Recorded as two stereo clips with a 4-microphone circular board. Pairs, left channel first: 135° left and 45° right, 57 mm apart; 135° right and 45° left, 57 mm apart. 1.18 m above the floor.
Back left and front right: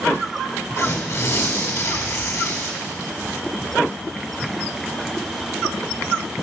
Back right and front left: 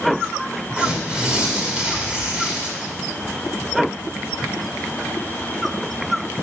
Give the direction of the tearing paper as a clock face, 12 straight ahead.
8 o'clock.